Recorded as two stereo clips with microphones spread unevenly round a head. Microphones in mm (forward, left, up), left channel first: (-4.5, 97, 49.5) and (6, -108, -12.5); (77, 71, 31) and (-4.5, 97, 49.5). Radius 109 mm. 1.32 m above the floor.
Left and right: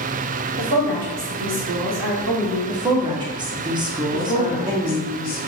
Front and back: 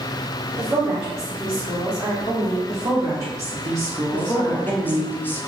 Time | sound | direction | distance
0.6 | a woman speaking | 130° right | 0.8 m
2.7 | a woman speaking | 135° right | 0.6 m
4.1 | a woman speaking | 40° left | 0.7 m